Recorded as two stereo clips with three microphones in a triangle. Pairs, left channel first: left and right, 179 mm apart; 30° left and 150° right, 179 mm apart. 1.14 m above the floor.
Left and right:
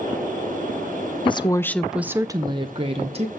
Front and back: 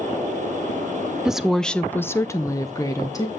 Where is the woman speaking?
125° left, 0.7 m; by 3.3 s 40° right, 1.2 m.